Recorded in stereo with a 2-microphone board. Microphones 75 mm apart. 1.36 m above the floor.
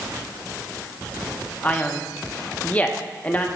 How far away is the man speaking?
About 1.2 m.